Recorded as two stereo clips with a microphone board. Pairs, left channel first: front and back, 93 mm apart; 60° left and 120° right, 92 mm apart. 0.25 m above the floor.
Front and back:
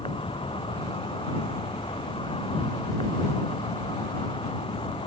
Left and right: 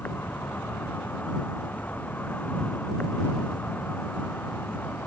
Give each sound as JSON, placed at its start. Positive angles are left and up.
{"t": 0.0, "sound": "an insect", "azimuth_deg": -10}